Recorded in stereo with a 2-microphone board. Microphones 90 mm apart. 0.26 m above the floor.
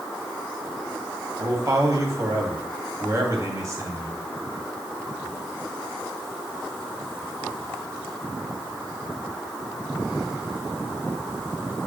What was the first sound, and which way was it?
A man speaking, 35° right (ahead or behind).